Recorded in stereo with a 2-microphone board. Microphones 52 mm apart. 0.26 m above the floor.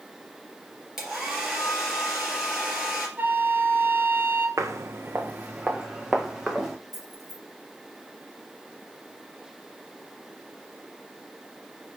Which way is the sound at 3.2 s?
40° right (ahead or behind).